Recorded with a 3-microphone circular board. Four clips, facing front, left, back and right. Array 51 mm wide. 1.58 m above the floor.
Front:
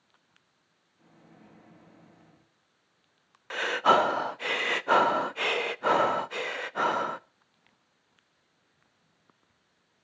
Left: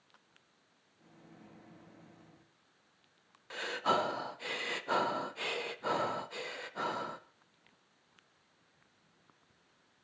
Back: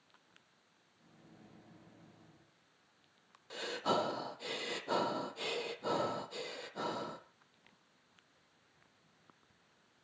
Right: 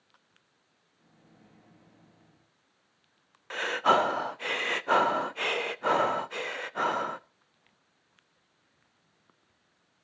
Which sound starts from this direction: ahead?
A microwave, at 1.0 s.